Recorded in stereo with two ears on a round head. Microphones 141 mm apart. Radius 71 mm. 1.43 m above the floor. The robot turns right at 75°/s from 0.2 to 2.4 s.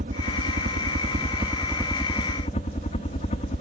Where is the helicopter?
120° right; by 3.6 s 45° left.